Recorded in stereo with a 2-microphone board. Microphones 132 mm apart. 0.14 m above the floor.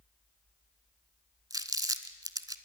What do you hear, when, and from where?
1.5 s crumpling: 25° right (ahead or behind), 1.1 m